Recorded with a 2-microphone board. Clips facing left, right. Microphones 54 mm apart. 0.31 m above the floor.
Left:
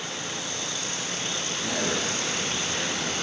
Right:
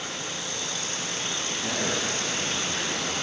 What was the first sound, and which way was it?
A man speaking, 5° right (ahead or behind).